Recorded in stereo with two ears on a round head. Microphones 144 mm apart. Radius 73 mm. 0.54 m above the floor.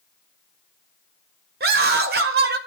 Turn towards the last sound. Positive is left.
turn(degrees=-65)  # may be behind; listen again after turning